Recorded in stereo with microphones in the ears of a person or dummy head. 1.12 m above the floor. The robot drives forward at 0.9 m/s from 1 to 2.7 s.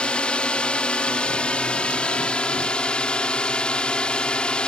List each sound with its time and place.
0.0 s a drone: 10° left (ahead or behind); by 4.7 s 5° left (ahead or behind)